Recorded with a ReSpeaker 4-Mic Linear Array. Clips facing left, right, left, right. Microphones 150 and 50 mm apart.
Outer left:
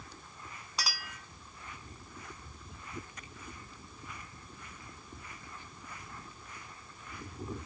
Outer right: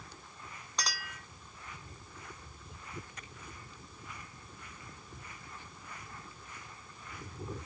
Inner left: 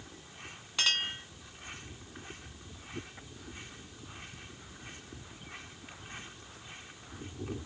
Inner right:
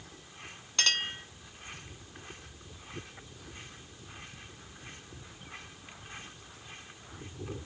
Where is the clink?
10° left (ahead or behind), 1.0 m.